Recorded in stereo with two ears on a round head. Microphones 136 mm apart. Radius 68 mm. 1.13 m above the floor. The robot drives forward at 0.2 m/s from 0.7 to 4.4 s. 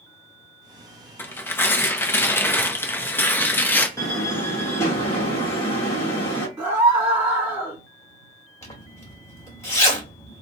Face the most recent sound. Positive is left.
turn(degrees=20)  # may be behind; listen again after turning